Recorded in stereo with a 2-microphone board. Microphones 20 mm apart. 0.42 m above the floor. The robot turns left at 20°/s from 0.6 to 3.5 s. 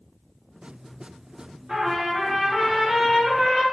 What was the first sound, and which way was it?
A trumpet, 85° right.